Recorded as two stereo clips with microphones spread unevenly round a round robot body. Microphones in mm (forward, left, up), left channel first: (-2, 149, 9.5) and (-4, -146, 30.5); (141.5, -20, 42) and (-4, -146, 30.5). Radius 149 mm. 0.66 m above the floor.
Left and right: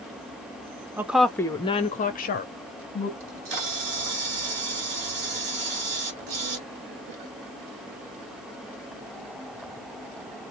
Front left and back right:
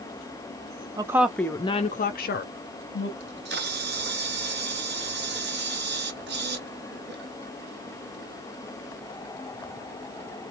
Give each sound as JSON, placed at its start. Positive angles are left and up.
{"t": 1.0, "sound": "a woman speaking", "azimuth_deg": -175, "distance_m": 0.6}
{"t": 3.2, "sound": "a camera shutter", "azimuth_deg": -110, "distance_m": 1.6}